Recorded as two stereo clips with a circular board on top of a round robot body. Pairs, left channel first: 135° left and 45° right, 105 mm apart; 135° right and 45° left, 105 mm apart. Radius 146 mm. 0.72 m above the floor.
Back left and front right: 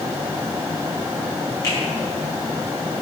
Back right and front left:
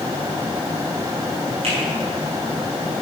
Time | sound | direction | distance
1.6 | a finger snap | 75° left | 5 m